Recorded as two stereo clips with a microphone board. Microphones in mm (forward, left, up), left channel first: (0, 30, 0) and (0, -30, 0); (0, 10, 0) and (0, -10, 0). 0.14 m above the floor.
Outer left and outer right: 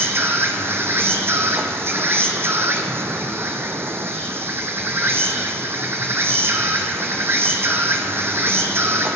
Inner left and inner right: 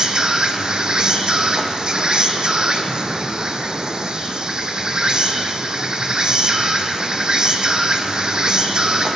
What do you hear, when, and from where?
0.0 s an insect: 45° right (ahead or behind), 1.1 m